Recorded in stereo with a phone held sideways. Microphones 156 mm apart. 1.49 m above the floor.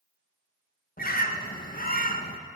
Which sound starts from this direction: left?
A bird, at 1.0 s.